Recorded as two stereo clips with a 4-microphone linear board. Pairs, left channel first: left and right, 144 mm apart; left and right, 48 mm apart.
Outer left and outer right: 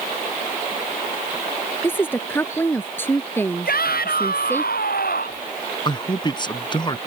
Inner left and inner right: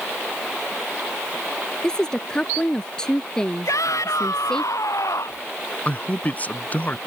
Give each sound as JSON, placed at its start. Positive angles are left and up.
{"t": 1.8, "sound": "a woman speaking", "side_deg": 15}
{"t": 3.6, "sound": "a shout", "side_deg": 85}
{"t": 5.8, "sound": "a man speaking", "side_deg": 30}